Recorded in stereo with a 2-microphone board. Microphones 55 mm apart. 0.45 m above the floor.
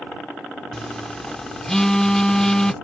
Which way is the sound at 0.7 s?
10° left (ahead or behind).